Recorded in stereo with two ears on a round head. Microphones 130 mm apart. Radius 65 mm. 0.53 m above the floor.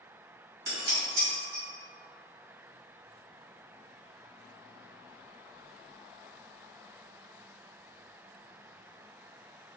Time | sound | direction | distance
0.7 | dishes clattering | 70° right (ahead or behind) | 1.5 m